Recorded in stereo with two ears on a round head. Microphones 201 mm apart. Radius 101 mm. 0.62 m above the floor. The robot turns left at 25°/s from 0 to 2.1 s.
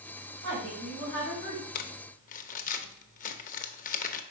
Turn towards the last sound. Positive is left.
turn(degrees=35)  # may be behind; listen again after turning